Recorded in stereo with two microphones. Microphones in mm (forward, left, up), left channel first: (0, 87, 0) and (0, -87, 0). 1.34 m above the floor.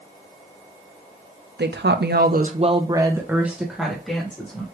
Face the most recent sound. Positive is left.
turn(degrees=5)  # may be behind; listen again after turning